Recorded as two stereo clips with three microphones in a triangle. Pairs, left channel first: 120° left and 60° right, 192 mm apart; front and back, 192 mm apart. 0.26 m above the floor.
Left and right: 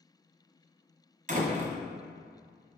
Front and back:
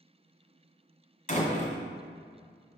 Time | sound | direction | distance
1.3 | a door slam | 35° right | 1.3 m